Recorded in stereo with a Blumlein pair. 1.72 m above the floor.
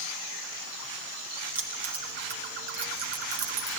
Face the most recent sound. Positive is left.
turn(degrees=-45)